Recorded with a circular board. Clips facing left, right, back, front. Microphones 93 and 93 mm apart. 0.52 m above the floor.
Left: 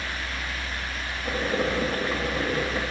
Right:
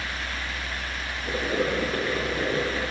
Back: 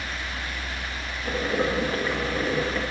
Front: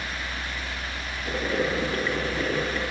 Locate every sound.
1.2 s boiling: 125° left, 2 m